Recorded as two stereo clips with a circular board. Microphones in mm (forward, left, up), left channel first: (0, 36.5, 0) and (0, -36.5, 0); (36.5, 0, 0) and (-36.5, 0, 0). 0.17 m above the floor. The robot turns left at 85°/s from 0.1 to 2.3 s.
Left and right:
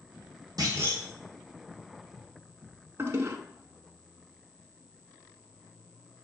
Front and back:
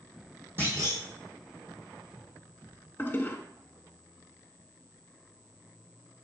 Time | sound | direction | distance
0.6 | a clunk | 125° right | 1.7 m
3.0 | a toilet flushing | 50° right | 0.6 m